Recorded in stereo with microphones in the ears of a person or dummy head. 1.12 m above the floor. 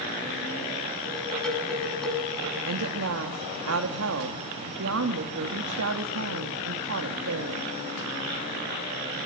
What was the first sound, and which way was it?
Dishes clattering, 5° left (ahead or behind).